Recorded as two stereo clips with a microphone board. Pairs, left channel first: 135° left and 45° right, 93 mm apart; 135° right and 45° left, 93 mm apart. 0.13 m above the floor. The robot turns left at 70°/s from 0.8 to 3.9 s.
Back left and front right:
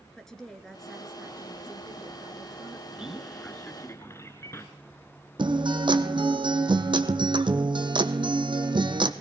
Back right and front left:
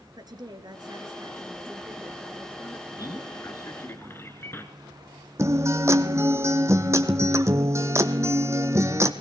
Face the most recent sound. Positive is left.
turn(degrees=-15)